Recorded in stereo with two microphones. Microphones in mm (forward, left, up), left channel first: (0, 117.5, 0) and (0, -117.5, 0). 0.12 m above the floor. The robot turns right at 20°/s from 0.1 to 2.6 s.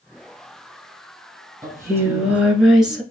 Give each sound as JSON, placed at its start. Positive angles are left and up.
{"t": 1.6, "sound": "singing", "side_deg": -15, "distance_m": 1.4}